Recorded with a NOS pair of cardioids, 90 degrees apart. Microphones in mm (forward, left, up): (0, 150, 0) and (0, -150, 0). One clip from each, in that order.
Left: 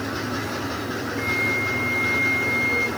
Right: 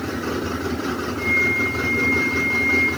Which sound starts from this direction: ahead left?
A flute, at 1.2 s.